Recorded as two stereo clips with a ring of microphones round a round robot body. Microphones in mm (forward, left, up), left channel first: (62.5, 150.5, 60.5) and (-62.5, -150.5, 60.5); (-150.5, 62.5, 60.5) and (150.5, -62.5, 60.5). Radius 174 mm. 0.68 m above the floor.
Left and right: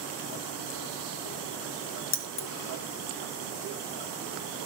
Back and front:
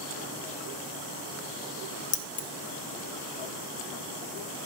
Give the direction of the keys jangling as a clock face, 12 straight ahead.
9 o'clock.